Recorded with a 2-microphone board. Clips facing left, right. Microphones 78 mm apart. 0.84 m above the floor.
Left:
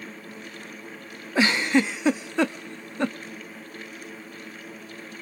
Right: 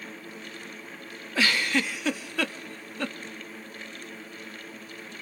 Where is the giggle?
20° left (ahead or behind), 0.6 m.